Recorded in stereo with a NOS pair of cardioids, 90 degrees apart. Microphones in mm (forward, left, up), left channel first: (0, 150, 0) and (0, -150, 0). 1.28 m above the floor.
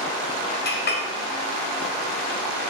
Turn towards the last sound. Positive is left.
turn(degrees=35)